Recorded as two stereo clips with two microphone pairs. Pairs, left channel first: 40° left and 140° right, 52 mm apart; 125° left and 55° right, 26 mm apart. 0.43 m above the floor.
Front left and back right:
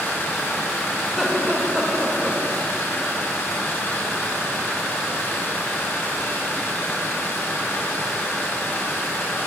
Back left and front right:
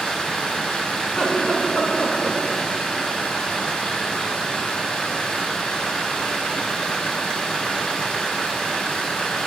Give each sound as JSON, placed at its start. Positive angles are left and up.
{"t": 0.0, "sound": "running water", "azimuth_deg": 80, "distance_m": 1.3}
{"t": 1.0, "sound": "laughter", "azimuth_deg": 135, "distance_m": 1.9}